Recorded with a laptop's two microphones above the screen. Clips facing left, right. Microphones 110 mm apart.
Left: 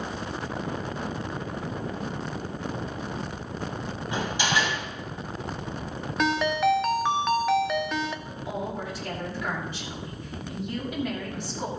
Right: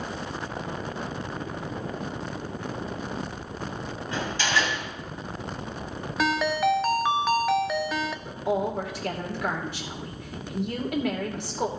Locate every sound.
4.1 s a door slam: 15° left (ahead or behind), 3.5 m
6.2 s a ringtone: centre (ahead or behind), 0.5 m
8.2 s a woman speaking: 75° right (ahead or behind), 2.5 m